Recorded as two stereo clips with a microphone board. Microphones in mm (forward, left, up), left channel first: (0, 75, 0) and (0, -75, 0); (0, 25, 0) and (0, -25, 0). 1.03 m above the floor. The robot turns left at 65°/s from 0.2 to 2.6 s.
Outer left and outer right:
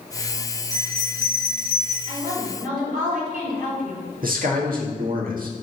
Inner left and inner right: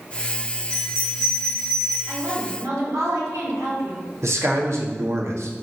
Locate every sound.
0.7 s a bell: 25° left, 3 m; by 2.0 s 55° right, 3 m
2.1 s a woman speaking: 65° right, 4 m; by 4.0 s 100° right, 4 m
4.2 s a man speaking: 75° right (ahead or behind), 1.9 m